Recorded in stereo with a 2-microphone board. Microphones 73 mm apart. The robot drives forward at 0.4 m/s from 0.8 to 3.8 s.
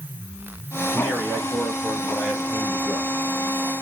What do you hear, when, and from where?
0.9 s a man speaking: centre (ahead or behind), 1.7 m